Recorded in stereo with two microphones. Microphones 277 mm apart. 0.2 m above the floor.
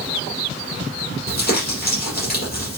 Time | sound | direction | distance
1.3 | crumpling | 35° left (ahead or behind) | 4.5 m